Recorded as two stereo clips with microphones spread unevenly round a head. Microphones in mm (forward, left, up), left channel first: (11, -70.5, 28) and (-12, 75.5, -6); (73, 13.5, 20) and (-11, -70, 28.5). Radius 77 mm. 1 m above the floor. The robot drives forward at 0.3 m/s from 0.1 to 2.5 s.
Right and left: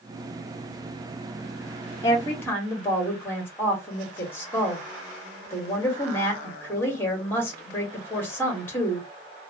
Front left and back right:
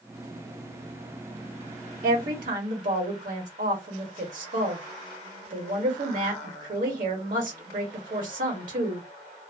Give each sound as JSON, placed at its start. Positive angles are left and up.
{"t": 2.0, "sound": "a woman speaking", "azimuth_deg": -160, "distance_m": 1.4}